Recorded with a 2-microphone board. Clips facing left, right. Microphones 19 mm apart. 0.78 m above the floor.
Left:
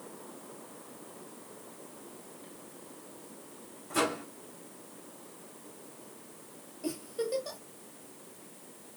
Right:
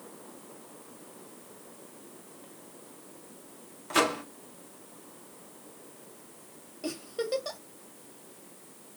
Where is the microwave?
40° right (ahead or behind), 1.3 m.